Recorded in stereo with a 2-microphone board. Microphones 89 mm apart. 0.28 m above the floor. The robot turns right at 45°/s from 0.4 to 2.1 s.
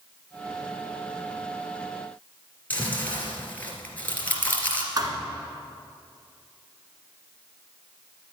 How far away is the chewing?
About 2.5 m.